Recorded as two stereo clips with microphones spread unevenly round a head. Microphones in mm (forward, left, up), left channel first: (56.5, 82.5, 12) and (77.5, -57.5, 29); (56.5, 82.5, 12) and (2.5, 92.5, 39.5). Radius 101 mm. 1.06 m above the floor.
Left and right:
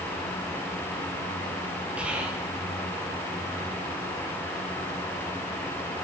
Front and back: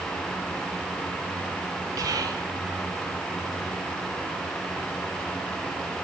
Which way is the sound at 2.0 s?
170° right.